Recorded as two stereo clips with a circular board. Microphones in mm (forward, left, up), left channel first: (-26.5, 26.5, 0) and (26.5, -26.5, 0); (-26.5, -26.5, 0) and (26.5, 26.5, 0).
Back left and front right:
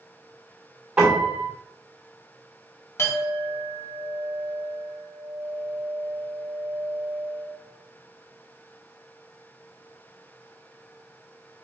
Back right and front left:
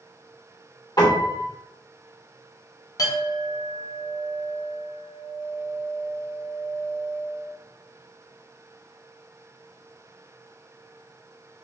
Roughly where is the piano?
Behind right.